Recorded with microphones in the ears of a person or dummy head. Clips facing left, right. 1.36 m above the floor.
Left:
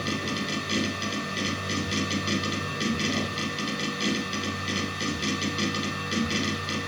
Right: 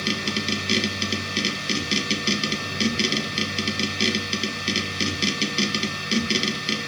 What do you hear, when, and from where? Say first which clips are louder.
0.0 s a machine running: right 2 dB; 35° right (ahead or behind), 1.9 m